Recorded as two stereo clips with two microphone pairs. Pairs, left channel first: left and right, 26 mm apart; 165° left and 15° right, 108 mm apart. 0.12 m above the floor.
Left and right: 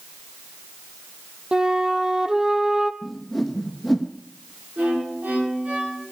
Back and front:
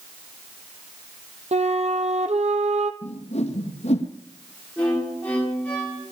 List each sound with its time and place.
1.5 s a flute: 25° right, 0.8 m
3.0 s a whoosh: straight behind, 1.3 m
4.8 s a violin: 115° right, 9 m